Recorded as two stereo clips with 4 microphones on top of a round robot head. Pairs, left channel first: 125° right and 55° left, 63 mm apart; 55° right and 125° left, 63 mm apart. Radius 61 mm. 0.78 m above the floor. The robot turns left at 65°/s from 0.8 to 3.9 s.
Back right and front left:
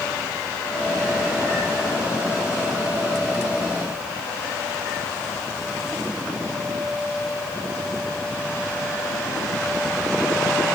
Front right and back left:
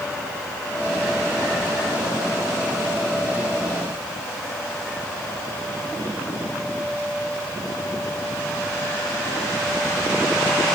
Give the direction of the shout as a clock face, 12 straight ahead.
No shout in this recording.